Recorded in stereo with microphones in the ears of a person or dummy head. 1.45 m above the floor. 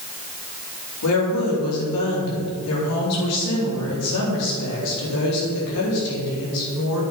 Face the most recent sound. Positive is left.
turn(degrees=85)